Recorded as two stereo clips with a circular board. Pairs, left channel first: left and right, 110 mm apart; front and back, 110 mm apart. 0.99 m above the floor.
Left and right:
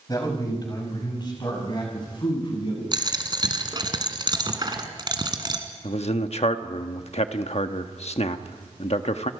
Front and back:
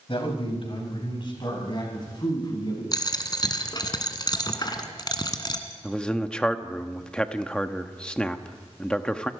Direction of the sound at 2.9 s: 45° right.